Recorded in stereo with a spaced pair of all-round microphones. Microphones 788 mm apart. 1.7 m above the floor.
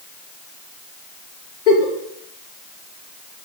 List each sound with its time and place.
1.7 s a giggle: 65° left (ahead or behind), 0.9 m